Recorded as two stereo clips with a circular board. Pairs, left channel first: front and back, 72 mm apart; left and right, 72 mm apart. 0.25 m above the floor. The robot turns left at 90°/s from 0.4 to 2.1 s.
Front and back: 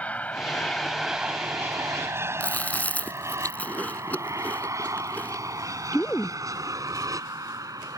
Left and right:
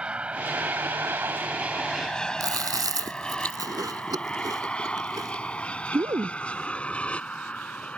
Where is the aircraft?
35° right; by 8.0 s 160° left.